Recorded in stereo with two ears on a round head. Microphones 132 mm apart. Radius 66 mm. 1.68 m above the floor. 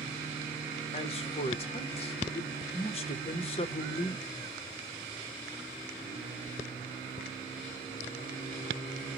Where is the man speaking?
40° left (ahead or behind), 1.0 m.